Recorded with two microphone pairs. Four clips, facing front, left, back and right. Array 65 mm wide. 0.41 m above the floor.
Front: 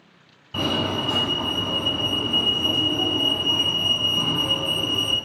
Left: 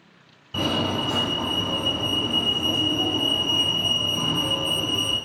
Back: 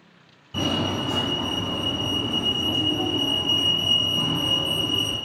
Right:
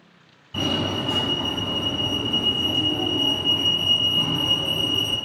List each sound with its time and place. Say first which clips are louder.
0.5 s a fire alarm: left 1 dB, front 1 dB; 35° left, 1.9 m